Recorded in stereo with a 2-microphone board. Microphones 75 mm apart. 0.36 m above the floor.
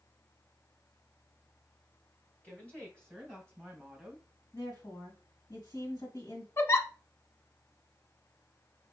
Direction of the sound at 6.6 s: 40° left (ahead or behind).